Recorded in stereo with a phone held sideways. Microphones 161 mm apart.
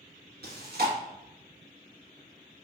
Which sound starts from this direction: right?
Chewing, at 0.4 s.